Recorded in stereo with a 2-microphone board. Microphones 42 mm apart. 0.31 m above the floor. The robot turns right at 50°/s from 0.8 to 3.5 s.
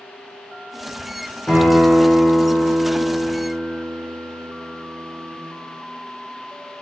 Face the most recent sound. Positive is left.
turn(degrees=-95)